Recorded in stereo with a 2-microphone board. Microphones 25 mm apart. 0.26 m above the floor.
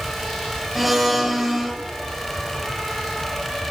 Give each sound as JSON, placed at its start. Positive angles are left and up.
{"t": 0.8, "sound": "a blender", "side_deg": -5, "distance_m": 0.9}